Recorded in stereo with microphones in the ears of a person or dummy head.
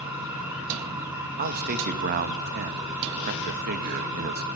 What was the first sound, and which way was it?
A machine running, 10° right (ahead or behind).